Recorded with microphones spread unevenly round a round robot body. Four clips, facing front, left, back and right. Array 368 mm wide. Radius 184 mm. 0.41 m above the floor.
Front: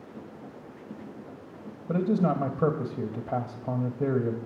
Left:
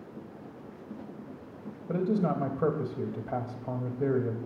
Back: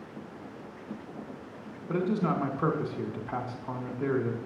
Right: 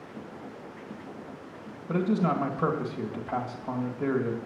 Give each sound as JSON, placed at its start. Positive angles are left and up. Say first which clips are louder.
{"t": 1.9, "sound": "a man speaking", "louder": "right 2 dB, front 3 dB", "azimuth_deg": 5, "distance_m": 2.5}